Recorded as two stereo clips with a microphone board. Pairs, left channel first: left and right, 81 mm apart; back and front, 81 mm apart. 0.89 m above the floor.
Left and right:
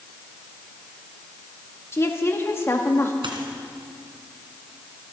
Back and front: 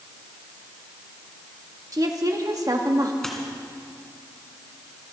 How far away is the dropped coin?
About 2.5 m.